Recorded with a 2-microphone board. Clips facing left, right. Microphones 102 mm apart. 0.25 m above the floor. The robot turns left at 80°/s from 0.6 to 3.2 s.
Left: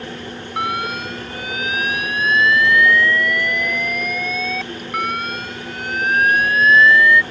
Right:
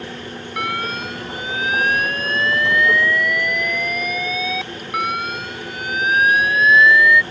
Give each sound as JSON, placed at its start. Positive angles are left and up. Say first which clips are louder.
{"t": 0.6, "sound": "an alarm", "louder": "left 2 dB", "azimuth_deg": 35}